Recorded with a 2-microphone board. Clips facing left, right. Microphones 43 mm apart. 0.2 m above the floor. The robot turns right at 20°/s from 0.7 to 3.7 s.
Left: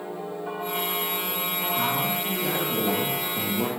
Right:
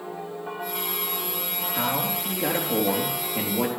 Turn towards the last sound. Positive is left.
turn(degrees=-80)